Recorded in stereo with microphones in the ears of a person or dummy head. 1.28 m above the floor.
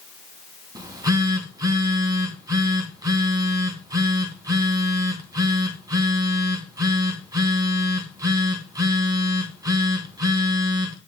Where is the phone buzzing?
20° right (ahead or behind), 2.5 m.